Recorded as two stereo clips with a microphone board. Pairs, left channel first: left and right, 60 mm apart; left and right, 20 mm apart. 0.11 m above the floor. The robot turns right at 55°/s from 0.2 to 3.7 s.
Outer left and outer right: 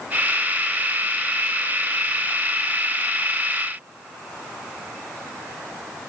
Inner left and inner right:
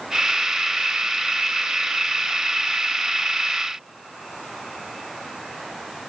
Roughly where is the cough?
No cough in this recording.